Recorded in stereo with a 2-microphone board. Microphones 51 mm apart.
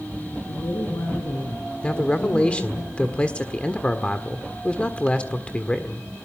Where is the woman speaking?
75° left (ahead or behind), 6.5 m.